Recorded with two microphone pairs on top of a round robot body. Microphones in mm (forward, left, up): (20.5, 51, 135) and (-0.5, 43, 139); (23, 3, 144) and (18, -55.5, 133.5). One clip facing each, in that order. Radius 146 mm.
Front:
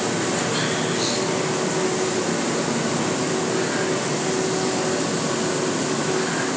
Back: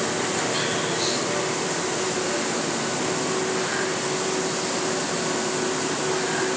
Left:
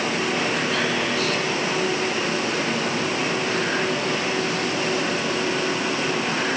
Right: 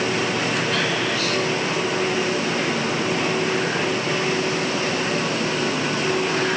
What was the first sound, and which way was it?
Only background noise.